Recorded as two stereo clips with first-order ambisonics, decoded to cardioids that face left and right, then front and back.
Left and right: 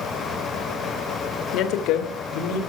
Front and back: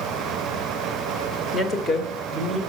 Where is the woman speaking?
70° left, 1.6 m; by 2.6 s 80° left, 2.5 m.